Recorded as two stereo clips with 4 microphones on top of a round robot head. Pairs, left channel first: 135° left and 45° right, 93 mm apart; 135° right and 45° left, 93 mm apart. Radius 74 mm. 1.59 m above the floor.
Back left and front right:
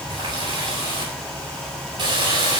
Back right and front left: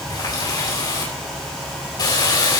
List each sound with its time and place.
0.1 s a running tap: 85° right, 8 m